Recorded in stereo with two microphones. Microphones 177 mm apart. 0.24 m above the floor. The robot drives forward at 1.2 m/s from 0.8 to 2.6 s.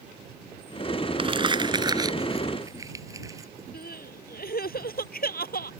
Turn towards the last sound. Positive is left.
turn(degrees=60)  # may be behind; listen again after turning